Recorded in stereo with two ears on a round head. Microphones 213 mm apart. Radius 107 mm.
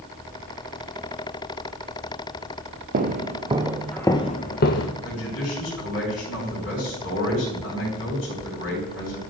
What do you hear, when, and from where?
2.9 s footsteps: 40° right (ahead or behind), 0.7 m; by 4.9 s 55° left (ahead or behind), 0.7 m
5.0 s a man speaking: 55° left (ahead or behind), 3.5 m